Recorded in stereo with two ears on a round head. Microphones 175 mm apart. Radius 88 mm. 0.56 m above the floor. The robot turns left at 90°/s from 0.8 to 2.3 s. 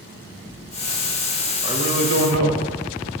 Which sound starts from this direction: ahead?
A man speaking, at 1.6 s.